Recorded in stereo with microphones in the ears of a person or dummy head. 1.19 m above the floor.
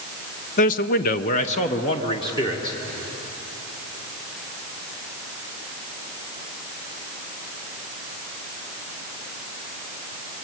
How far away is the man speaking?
About 0.8 m.